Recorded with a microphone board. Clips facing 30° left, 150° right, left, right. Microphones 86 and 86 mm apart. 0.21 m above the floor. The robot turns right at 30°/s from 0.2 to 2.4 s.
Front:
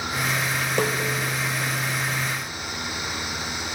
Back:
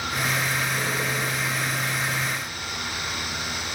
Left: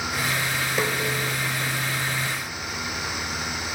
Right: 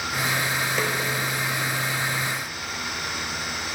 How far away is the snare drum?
About 5 m.